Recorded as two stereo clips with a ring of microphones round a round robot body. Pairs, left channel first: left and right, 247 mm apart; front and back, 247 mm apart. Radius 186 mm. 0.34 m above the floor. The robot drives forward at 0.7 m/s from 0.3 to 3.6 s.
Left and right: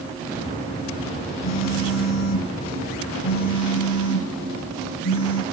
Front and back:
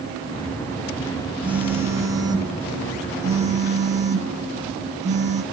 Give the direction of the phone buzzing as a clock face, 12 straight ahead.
9 o'clock.